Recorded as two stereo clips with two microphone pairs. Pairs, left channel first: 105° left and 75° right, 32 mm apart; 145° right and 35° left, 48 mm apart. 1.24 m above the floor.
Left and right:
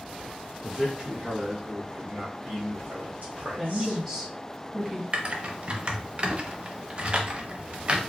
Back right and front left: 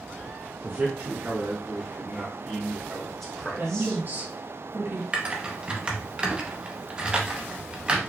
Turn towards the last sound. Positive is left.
turn(degrees=-30)